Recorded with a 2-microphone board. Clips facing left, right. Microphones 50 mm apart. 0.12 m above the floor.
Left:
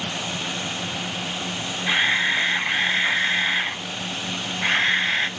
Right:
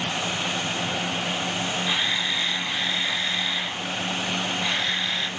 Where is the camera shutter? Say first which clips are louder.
Left 10 dB; 45° left (ahead or behind), 0.9 m.